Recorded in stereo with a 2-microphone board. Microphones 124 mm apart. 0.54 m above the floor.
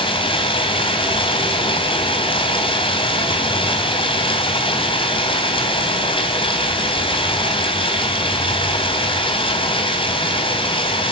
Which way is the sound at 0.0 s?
45° left (ahead or behind).